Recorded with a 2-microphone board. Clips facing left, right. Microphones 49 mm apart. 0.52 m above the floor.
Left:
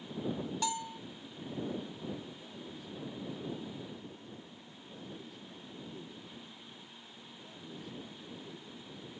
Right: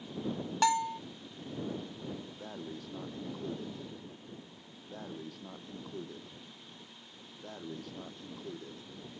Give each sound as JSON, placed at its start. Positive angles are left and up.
{"t": 0.6, "sound": "a bell", "side_deg": -75}
{"t": 2.4, "sound": "breathing", "side_deg": -70}